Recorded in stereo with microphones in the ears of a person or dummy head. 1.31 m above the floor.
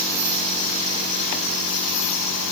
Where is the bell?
I don't hear a bell.